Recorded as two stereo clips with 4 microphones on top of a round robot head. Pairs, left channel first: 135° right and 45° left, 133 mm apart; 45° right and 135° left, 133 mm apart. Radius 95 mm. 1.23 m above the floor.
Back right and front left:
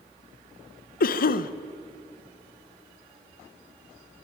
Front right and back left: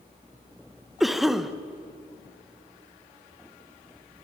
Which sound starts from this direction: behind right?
A cough, at 1.0 s.